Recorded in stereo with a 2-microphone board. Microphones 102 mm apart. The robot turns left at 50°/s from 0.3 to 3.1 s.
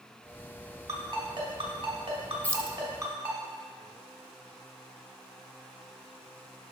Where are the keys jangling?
15° left (ahead or behind), 0.7 m; by 2.8 s 5° left (ahead or behind), 0.7 m.